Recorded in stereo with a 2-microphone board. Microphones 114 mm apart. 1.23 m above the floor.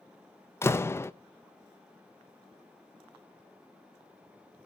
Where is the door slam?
25° left (ahead or behind), 0.5 m.